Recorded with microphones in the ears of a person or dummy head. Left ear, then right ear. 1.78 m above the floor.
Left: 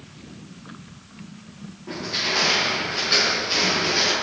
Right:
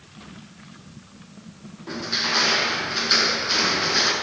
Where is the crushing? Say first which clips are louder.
Right 1 dB; 75° right (ahead or behind), 6.5 m.